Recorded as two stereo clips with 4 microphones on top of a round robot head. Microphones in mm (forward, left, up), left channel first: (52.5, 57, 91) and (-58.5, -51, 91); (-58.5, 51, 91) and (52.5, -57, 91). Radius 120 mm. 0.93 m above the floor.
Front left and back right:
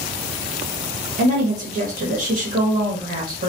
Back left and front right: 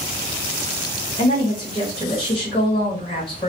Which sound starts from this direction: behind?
A woman speaking, at 1.2 s.